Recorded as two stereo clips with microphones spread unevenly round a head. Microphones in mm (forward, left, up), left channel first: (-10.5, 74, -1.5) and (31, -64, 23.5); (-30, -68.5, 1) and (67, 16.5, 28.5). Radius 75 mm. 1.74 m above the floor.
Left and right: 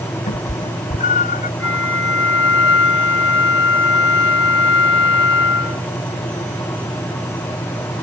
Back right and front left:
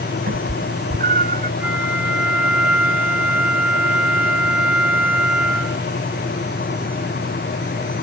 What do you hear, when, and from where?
0.3 s a cat meowing: 60° left; by 1.5 s 65° left
1.6 s a flute: 120° left